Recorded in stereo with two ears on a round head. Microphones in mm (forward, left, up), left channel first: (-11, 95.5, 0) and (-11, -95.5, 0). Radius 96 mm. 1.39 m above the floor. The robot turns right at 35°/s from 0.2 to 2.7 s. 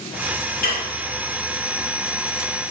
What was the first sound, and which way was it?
Dishes clattering, 40° left (ahead or behind).